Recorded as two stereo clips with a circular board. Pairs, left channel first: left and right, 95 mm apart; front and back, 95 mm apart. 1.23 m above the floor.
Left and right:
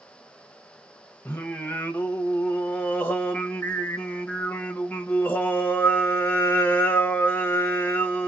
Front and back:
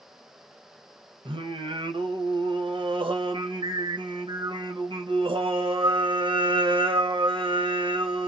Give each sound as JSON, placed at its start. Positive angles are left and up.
{"t": 1.2, "sound": "singing", "azimuth_deg": 160, "distance_m": 0.9}